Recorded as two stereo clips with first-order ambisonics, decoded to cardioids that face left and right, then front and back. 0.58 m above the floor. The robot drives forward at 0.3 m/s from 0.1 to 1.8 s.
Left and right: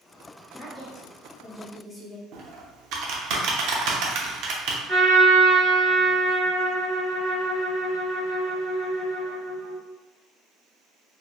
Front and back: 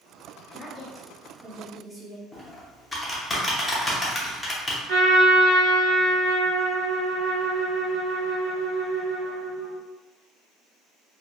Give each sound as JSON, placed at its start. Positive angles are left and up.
{"t": 0.5, "sound": "a woman speaking", "azimuth_deg": 40, "distance_m": 0.6}
{"t": 2.3, "sound": "typing on a keyboard", "azimuth_deg": -80, "distance_m": 0.5}
{"t": 4.9, "sound": "a trumpet", "azimuth_deg": -150, "distance_m": 1.6}